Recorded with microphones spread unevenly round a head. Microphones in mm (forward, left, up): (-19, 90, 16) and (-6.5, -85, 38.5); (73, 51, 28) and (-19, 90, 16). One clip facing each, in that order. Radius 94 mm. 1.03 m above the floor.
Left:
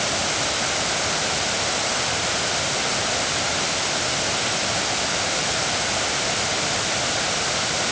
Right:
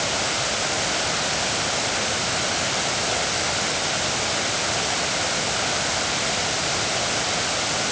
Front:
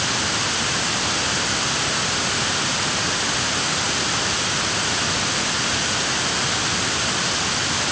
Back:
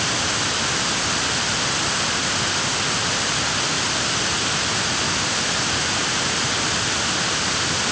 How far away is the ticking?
No ticking in this recording.